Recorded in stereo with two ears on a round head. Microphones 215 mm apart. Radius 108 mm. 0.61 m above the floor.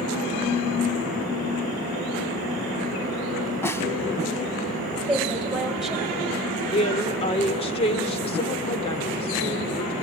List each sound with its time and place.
3.6 s a snare drum: 10° left (ahead or behind), 1.3 m
5.1 s a woman speaking: centre (ahead or behind), 4 m
6.7 s a woman speaking: 25° left (ahead or behind), 2 m